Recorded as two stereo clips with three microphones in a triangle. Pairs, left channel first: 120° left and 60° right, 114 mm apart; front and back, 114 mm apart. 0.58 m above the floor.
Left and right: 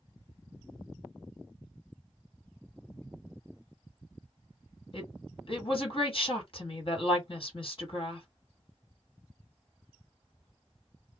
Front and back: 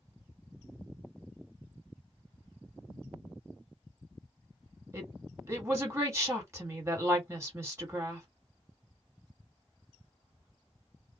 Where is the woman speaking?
120° left, 1.8 m.